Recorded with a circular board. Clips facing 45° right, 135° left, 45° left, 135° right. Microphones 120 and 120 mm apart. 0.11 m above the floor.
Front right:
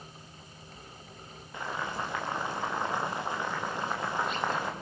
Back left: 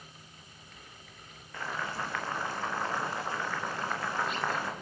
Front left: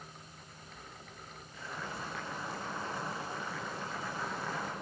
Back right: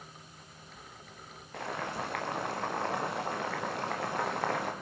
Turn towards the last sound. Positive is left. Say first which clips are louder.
# front right 1 dB, back right 7 dB
turn(degrees=-115)